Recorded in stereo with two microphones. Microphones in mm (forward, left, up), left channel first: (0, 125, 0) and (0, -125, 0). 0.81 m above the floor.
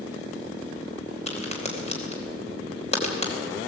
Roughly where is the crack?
Left.